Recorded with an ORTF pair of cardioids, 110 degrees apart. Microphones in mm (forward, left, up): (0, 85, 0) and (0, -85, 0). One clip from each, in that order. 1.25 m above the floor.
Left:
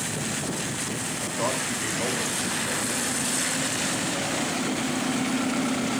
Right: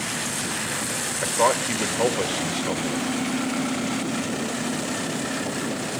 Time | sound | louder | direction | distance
1.2 | a man speaking | right 8 dB | 65° right | 1.9 m